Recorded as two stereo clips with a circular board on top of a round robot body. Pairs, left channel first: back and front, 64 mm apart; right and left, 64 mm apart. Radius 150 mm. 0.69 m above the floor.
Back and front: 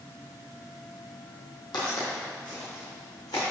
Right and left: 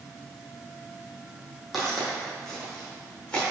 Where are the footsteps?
Straight behind, 2 m; by 3.4 s 165° right, 3.5 m.